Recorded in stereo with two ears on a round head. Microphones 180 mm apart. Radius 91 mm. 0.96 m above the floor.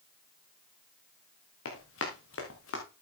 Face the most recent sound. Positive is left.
turn(degrees=75)  # may be behind; listen again after turning